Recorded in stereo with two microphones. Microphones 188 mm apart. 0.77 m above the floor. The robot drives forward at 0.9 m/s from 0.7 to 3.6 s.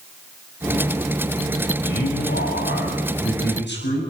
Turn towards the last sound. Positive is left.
turn(degrees=80)